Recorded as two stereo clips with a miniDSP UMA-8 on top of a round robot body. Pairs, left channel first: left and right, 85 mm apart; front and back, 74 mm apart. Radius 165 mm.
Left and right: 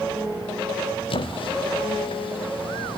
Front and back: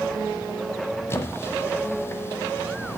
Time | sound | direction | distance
1.1 | a squeak | 65° left | 1.0 m